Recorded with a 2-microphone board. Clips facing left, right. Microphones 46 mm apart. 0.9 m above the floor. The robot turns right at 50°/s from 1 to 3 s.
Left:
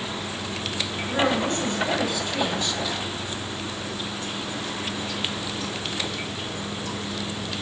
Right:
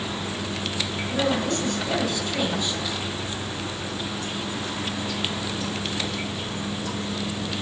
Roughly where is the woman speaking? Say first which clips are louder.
Left 2 dB; behind left.